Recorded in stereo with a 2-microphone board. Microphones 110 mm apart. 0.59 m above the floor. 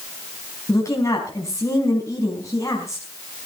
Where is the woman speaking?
30° left (ahead or behind), 4.5 m.